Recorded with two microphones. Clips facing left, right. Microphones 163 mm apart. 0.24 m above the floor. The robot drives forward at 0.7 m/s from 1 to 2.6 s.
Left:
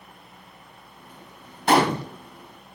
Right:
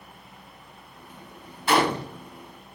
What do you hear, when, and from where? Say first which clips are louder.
1.7 s a gunshot: left 3 dB; 45° left (ahead or behind), 0.7 m; by 2.1 s 40° left (ahead or behind), 0.9 m